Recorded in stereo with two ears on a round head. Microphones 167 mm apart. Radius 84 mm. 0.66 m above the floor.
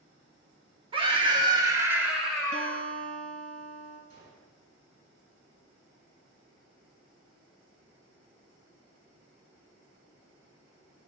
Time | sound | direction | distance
0.9 | a scream | 30° right (ahead or behind) | 1.4 m
2.5 | a guitar | 45° right (ahead or behind) | 1.7 m
4.1 | a gunshot | 75° right (ahead or behind) | 3.5 m